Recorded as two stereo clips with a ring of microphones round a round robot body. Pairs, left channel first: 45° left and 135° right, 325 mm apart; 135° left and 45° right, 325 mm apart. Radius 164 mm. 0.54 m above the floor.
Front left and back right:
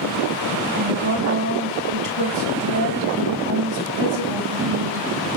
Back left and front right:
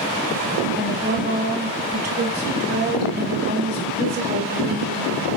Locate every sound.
0.8 s a woman speaking: 105° right, 4.5 m